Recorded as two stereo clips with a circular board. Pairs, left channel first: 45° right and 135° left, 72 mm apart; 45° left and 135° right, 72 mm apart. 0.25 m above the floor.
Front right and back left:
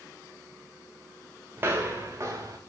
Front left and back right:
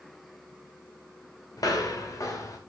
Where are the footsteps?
80° left, 2.5 m; by 2.6 s 90° left, 2.5 m.